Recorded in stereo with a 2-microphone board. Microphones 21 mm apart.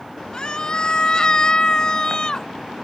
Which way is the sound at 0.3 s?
40° left (ahead or behind).